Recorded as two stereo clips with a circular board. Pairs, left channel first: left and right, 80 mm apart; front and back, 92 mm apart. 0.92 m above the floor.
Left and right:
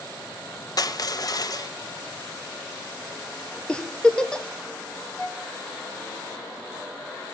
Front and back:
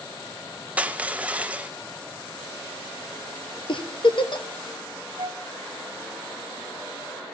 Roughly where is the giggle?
Ahead.